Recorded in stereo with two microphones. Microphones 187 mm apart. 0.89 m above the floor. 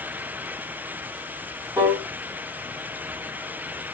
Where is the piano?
15° right (ahead or behind), 0.9 m.